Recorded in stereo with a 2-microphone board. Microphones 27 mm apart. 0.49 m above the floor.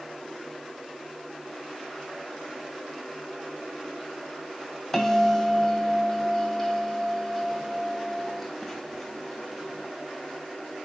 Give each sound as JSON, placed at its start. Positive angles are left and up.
{"t": 4.9, "sound": "a bell", "side_deg": 10, "distance_m": 2.0}